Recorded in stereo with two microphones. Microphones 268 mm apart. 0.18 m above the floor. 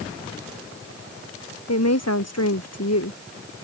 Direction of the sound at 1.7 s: 70° left (ahead or behind).